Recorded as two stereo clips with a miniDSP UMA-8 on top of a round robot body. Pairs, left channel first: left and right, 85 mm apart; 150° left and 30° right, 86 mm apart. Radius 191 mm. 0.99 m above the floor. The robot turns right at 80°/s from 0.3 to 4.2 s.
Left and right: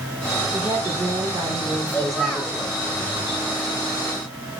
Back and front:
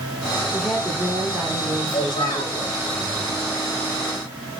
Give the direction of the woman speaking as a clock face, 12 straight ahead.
4 o'clock.